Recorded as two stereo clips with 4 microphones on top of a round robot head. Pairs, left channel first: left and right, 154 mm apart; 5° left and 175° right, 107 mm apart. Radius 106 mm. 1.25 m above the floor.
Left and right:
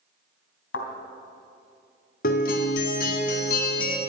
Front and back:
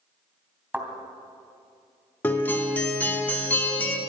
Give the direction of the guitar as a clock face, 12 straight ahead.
9 o'clock.